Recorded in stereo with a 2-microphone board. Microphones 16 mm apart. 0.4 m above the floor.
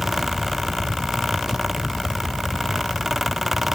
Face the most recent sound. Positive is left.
No sound to turn to.